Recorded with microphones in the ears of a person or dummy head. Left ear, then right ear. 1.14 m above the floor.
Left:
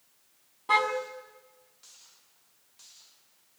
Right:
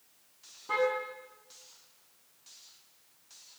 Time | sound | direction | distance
0.7 | a car horn | 50° left (ahead or behind) | 5.5 m